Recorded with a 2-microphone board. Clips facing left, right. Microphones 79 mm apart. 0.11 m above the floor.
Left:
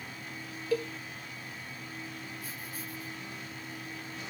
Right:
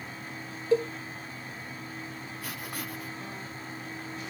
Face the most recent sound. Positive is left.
turn(degrees=-75)  # may be behind; listen again after turning